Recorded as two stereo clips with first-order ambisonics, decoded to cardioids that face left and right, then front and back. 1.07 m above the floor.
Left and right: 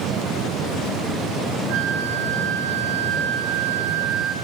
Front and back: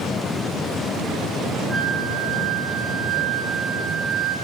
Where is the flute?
105° right, 6 m.